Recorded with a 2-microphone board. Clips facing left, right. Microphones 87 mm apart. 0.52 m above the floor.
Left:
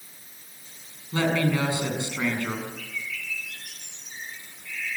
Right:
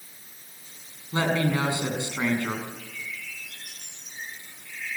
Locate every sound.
1.1 s a woman speaking: 25° right (ahead or behind), 6 m
2.8 s a bird: 85° left, 8.5 m